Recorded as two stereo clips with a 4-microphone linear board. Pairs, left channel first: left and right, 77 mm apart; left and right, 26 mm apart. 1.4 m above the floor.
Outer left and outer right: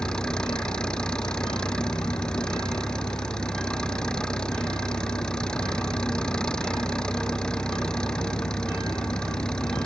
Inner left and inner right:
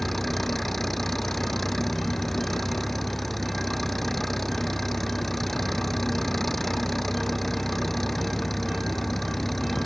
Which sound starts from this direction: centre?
An engine running, at 0.0 s.